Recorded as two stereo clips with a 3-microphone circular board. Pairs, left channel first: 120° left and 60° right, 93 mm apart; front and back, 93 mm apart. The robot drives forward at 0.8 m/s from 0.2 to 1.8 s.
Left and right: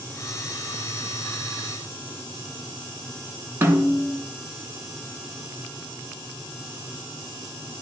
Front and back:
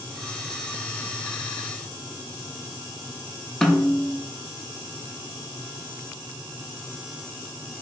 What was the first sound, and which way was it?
A snare drum, 80° right.